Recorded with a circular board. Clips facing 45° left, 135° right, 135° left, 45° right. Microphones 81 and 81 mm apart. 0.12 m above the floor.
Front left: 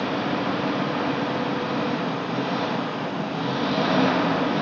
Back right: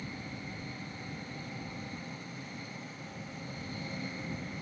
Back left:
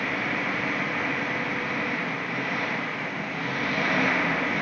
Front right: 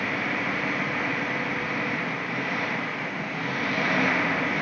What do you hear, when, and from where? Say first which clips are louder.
0.0 s an engine running: front left 19 dB, even; 45° left